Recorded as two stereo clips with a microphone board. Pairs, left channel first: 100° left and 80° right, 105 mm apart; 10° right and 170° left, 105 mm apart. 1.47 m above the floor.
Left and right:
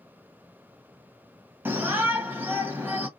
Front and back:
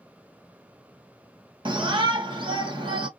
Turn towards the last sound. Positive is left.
turn(degrees=-150)